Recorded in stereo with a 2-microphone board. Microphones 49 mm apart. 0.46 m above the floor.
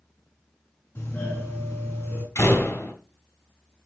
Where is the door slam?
80° left, 2 m.